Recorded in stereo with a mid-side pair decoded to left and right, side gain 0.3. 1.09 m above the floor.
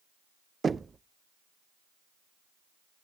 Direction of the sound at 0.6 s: 50° right.